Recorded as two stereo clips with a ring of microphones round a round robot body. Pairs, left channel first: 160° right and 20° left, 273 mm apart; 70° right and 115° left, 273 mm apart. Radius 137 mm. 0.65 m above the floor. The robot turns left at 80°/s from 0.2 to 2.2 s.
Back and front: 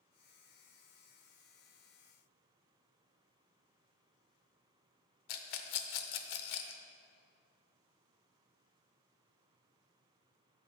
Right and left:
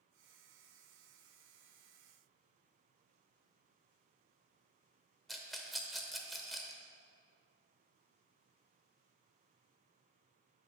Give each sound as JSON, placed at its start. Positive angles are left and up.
{"t": 5.3, "sound": "a rattle", "azimuth_deg": -155, "distance_m": 0.8}